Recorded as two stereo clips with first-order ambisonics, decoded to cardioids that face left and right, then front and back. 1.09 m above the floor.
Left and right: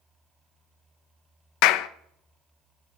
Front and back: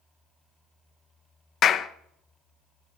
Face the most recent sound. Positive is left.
turn(degrees=60)